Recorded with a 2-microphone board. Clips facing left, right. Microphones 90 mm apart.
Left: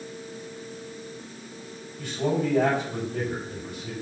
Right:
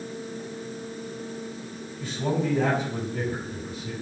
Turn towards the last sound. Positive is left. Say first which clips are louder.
# left 1 dB
turn(degrees=75)  # may be behind; listen again after turning